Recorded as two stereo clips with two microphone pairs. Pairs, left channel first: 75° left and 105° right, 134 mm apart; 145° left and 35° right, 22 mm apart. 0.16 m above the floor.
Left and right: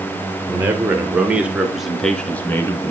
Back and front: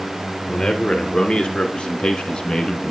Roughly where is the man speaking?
Behind.